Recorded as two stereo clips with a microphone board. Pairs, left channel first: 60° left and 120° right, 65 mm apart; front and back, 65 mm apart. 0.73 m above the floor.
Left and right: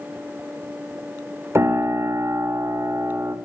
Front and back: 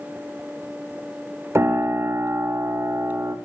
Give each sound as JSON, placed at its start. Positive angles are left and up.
{"t": 1.6, "sound": "a piano", "azimuth_deg": -155, "distance_m": 0.5}